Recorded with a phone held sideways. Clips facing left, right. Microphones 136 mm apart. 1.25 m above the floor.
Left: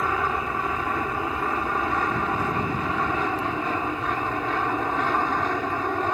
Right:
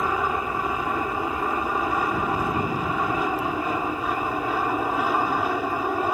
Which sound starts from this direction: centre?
An aircraft, at 0.0 s.